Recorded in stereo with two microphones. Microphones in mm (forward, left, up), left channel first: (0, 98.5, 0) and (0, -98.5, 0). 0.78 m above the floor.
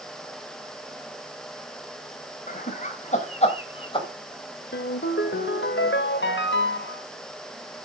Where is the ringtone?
75° left (ahead or behind), 1.3 m.